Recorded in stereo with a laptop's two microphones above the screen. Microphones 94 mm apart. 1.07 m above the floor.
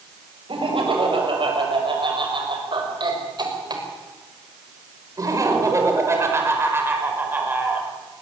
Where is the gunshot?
No gunshot in this recording.